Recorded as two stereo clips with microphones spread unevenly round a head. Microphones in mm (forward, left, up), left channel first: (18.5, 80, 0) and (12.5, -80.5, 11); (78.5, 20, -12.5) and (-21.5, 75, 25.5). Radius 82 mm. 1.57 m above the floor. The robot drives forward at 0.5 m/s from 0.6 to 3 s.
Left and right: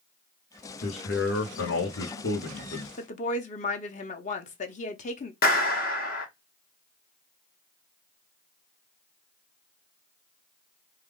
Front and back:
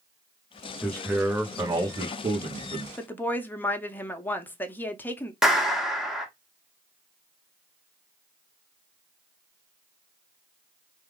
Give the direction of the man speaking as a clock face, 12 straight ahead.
10 o'clock.